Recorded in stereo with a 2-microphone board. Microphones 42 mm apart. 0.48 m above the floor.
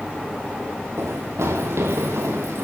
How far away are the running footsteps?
About 4 m.